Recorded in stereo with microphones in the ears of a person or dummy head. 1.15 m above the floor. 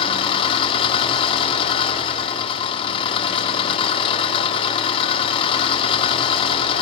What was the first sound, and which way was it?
An engine running, 30° left (ahead or behind).